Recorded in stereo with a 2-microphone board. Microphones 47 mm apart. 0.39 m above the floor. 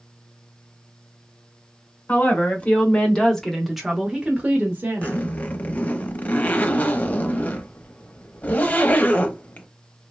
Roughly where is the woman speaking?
Left.